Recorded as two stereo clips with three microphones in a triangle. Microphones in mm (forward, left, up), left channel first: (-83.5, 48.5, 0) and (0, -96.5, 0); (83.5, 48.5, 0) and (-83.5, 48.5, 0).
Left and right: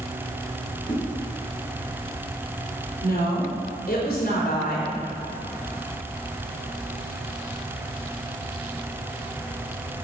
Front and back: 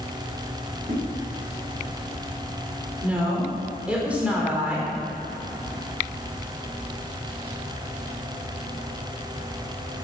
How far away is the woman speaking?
About 4 m.